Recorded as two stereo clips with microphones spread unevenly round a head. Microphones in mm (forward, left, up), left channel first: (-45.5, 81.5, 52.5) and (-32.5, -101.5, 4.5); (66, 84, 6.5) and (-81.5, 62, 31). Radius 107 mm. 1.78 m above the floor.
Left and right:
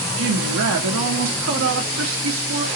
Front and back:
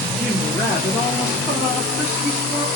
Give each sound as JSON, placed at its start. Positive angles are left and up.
{"t": 0.2, "sound": "a woman speaking", "azimuth_deg": -85, "distance_m": 0.8}